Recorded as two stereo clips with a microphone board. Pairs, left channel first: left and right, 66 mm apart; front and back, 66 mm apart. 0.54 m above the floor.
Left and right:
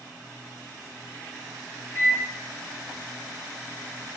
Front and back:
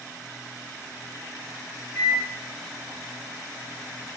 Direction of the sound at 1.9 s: 45° left.